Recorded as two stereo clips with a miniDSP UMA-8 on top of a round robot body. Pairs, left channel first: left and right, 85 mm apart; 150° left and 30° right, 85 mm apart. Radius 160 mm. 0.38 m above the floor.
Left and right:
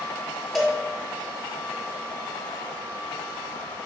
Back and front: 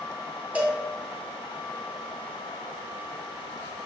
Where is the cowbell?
Straight ahead, 1.1 m.